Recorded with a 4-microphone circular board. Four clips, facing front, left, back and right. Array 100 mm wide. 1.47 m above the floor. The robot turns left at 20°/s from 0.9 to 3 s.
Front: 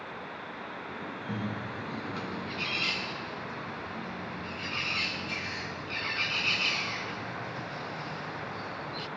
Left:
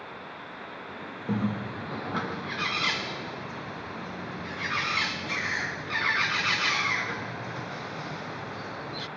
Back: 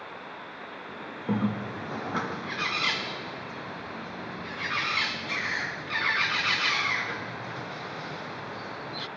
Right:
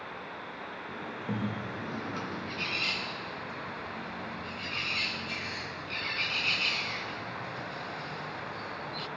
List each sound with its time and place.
1.3 s a bird: 165° left, 0.6 m; by 9.1 s 130° left, 0.6 m